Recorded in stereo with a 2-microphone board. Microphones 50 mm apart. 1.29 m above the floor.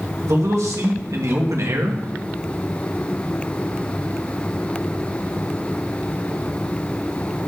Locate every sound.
0.2 s a man speaking: 80° right, 2.5 m